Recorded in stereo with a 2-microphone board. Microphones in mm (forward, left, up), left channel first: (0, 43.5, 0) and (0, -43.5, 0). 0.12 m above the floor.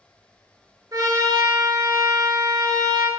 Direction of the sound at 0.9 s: 40° right (ahead or behind).